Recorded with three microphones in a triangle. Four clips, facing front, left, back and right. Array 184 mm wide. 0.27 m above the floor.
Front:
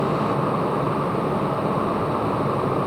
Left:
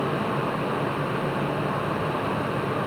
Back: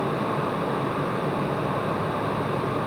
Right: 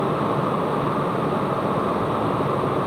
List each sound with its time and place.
Only background noise.